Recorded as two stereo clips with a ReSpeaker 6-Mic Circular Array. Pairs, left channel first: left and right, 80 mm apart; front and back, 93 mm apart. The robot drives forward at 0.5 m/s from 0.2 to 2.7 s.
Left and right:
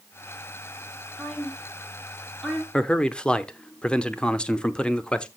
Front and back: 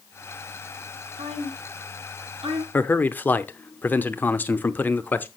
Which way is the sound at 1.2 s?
175° left.